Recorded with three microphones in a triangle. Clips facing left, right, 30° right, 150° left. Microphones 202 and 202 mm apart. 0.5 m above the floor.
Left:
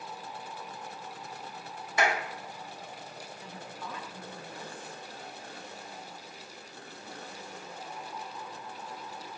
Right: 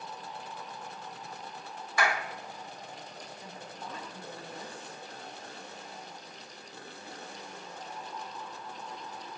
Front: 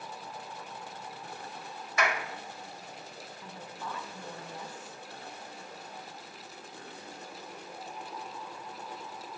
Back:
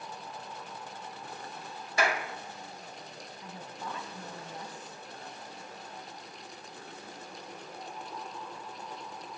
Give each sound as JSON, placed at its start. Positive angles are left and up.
{"t": 2.0, "sound": "a clap", "azimuth_deg": 135, "distance_m": 0.9}
{"t": 3.4, "sound": "a woman speaking", "azimuth_deg": -140, "distance_m": 3.5}